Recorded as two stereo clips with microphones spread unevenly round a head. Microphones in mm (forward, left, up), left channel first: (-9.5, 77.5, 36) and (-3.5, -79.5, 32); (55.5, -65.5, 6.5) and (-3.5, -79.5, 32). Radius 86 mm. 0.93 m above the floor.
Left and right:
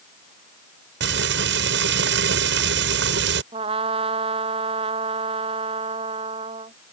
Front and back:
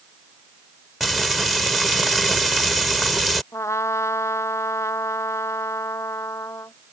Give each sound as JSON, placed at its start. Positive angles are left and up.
{"t": 1.0, "sound": "frying", "azimuth_deg": -75}
{"t": 3.5, "sound": "a trumpet", "azimuth_deg": -30}